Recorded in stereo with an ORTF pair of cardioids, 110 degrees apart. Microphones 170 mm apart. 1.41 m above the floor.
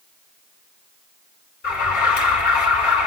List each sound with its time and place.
1.6 s an alarm: 65° left, 3.5 m